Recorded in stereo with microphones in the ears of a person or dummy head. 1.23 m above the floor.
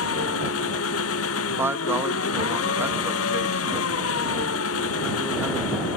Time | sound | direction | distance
0.0 | an engine running | 80° left | ?
1.6 | a man speaking | 15° right (ahead or behind) | ?